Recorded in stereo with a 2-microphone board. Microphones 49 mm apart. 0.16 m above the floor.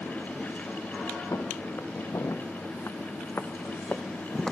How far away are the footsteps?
About 1.8 m.